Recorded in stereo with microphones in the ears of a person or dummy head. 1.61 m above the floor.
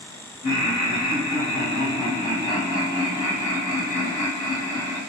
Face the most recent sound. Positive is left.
turn(degrees=80)